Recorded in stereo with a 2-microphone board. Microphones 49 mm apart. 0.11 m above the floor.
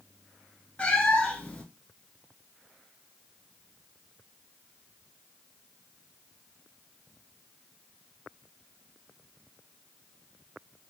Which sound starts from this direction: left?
A cat meowing, at 0.8 s.